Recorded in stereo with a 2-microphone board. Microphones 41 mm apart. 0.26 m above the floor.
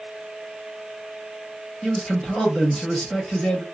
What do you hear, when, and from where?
1.8 s a man speaking: 15° left (ahead or behind), 1.3 m